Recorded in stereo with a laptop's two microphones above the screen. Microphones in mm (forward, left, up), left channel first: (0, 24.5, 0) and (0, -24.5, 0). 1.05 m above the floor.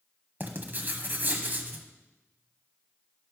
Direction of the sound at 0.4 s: 45° right (ahead or behind).